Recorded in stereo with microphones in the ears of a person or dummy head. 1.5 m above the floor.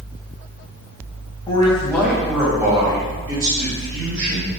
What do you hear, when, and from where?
1.5 s a man speaking: 25° left (ahead or behind), 1.3 m; by 4.5 s 55° right (ahead or behind), 2 m